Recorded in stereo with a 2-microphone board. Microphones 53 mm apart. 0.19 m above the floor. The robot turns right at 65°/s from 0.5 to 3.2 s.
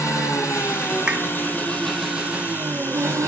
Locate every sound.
0.0 s an engine running: 80° left, 1.7 m; by 3.3 s 100° right, 1.7 m
1.1 s a clap: 15° right (ahead or behind), 1.1 m; by 1.3 s 20° right (ahead or behind), 1.1 m